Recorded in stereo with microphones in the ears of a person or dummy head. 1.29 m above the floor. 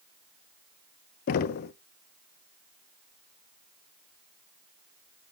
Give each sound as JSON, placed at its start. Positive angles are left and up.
{"t": 1.3, "sound": "knocking", "side_deg": 55, "distance_m": 0.5}